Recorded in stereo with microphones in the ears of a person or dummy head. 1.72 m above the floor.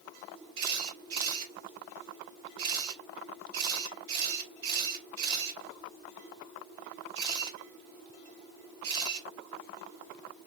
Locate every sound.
0.6 s a camera shutter: 60° right (ahead or behind), 2 m